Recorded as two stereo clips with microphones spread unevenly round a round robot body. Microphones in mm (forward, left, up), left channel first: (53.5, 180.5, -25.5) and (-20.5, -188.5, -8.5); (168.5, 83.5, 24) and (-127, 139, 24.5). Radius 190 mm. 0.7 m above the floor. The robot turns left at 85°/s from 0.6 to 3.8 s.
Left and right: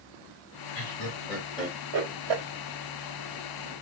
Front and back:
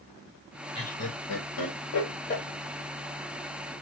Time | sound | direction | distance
0.8 | laughter | 60° left | 1.8 m